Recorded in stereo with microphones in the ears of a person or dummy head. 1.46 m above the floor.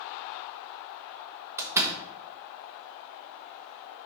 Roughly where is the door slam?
Centre.